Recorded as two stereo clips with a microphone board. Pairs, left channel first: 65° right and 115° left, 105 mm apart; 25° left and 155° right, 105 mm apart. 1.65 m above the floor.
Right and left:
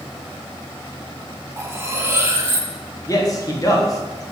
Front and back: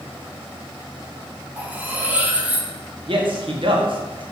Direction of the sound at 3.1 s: 125° right.